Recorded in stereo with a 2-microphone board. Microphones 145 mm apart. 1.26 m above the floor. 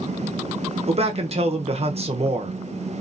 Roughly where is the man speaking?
Right.